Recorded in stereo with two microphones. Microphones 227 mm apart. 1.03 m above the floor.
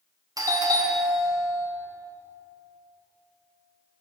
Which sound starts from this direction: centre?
A doorbell, at 0.4 s.